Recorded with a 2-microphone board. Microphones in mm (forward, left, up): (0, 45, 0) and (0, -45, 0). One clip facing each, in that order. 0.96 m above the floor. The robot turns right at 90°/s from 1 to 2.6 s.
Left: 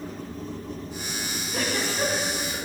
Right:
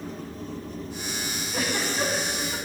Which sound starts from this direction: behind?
A giggle, at 1.5 s.